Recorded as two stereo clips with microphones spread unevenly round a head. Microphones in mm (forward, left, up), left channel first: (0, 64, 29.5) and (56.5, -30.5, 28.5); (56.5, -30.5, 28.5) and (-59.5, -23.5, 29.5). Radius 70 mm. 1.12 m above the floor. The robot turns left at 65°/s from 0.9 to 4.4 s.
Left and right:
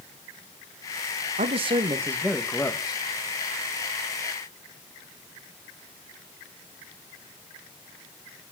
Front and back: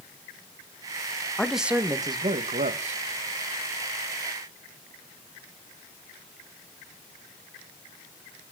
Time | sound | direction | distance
1.4 | a man speaking | 85° right | 1.7 m